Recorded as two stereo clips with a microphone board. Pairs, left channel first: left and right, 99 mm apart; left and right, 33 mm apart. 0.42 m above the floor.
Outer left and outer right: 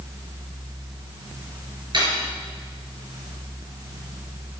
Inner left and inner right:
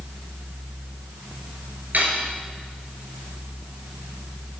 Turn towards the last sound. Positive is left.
turn(degrees=-50)  # may be behind; listen again after turning